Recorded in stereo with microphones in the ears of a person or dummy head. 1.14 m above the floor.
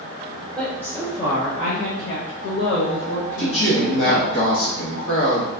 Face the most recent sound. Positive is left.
turn(degrees=85)